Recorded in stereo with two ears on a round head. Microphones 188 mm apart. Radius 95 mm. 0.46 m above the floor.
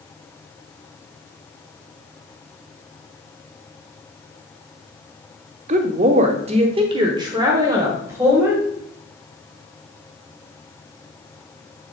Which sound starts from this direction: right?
A woman speaking, at 5.7 s.